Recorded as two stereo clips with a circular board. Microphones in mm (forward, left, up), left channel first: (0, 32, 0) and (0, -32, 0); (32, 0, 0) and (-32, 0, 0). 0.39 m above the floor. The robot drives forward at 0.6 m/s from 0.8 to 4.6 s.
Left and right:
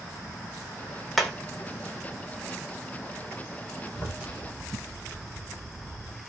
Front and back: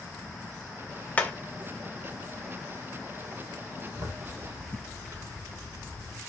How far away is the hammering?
About 0.8 m.